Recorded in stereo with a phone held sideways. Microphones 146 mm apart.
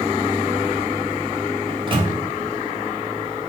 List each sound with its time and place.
1.7 s a microwave: 35° right (ahead or behind), 0.5 m